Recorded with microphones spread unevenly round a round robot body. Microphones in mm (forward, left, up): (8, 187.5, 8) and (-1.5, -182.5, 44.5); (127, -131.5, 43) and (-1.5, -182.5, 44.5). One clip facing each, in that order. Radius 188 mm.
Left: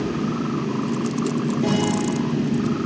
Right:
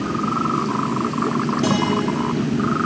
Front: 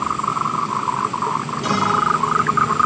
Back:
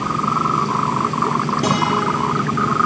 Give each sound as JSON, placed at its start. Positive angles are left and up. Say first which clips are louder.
{"t": 1.6, "sound": "a guitar", "louder": "right 1 dB, back 1 dB", "azimuth_deg": -145, "distance_m": 5.5}